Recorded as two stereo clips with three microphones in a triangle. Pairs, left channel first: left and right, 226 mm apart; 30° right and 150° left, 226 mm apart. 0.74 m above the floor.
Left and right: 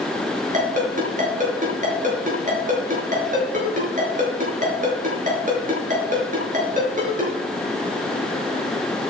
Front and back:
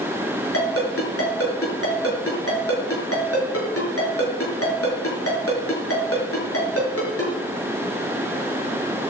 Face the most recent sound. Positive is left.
turn(degrees=-35)